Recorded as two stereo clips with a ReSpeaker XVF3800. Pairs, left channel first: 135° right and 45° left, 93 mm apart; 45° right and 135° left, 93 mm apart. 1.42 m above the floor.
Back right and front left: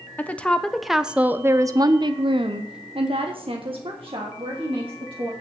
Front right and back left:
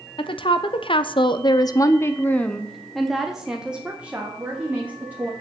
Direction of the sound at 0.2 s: 65° right.